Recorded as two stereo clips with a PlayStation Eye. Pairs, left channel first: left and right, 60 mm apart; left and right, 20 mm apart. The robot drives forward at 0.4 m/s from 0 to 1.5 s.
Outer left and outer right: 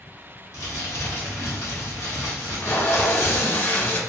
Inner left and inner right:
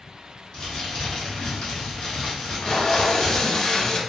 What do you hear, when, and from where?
0.5 s crumpling: 55° left (ahead or behind), 1.5 m; by 3.4 s 50° left (ahead or behind), 1.5 m
2.4 s tape being pulled: 35° left (ahead or behind), 0.6 m